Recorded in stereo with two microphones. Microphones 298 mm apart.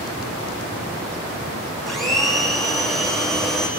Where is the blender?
Centre (ahead or behind), 4 m.